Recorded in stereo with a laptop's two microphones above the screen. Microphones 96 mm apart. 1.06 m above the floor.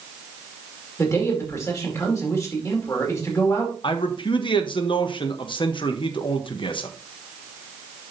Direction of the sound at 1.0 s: 30° left (ahead or behind).